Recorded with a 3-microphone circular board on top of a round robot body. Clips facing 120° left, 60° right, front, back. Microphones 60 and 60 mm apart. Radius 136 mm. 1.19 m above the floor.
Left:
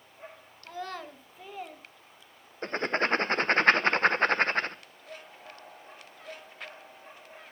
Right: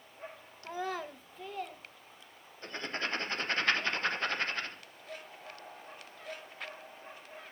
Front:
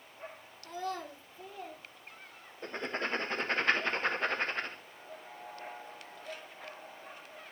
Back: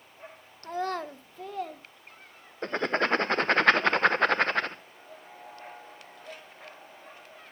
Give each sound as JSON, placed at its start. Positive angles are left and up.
{"t": 0.6, "sound": "a child speaking", "azimuth_deg": -130, "distance_m": 1.0}
{"t": 2.6, "sound": "writing", "azimuth_deg": 165, "distance_m": 1.0}